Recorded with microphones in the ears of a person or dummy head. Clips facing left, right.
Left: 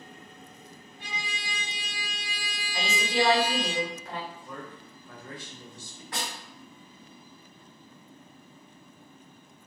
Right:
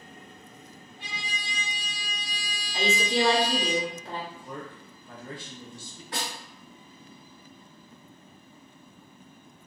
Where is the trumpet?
50° right (ahead or behind), 1.4 m.